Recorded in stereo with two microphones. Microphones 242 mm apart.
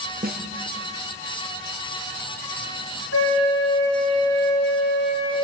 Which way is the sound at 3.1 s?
75° left (ahead or behind).